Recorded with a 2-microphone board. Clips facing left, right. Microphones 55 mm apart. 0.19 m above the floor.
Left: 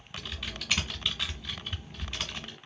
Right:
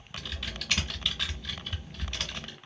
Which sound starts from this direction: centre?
Typing on a keyboard, at 0.2 s.